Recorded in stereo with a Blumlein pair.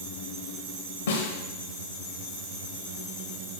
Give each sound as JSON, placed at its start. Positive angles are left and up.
{"t": 1.1, "sound": "a snare drum", "azimuth_deg": 60, "distance_m": 1.3}